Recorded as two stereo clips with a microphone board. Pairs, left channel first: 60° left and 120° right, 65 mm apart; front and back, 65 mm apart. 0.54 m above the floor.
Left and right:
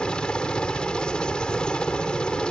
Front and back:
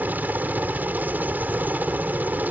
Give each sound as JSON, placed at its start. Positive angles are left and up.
{"t": 0.0, "sound": "a helicopter", "azimuth_deg": 130}